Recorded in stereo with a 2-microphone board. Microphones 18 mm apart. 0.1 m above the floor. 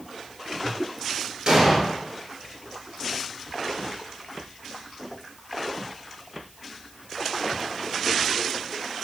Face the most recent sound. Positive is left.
turn(degrees=-40)  # may be behind; listen again after turning